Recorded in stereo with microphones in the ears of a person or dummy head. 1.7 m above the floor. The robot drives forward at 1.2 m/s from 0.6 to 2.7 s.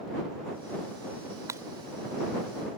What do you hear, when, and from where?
1.5 s breaking glass: 15° right (ahead or behind)